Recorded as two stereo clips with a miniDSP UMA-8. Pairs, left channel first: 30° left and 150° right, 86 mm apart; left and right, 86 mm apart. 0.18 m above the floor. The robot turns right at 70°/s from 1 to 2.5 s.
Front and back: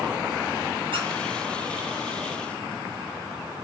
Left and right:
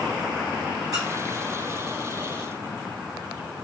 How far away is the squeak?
About 0.7 m.